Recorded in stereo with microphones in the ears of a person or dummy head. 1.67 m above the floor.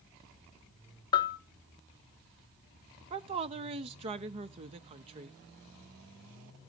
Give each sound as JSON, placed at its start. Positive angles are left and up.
{"t": 1.1, "sound": "a bell", "side_deg": 25, "distance_m": 0.7}
{"t": 3.1, "sound": "a woman speaking", "side_deg": -30, "distance_m": 0.6}